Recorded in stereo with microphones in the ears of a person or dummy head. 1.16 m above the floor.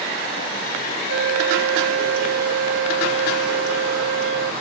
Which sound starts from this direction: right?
A flute, at 1.1 s.